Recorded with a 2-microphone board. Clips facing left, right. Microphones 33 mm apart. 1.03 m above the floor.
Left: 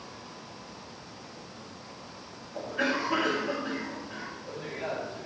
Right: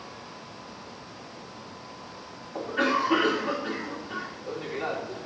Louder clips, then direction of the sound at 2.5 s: Right 4 dB; 60° right (ahead or behind).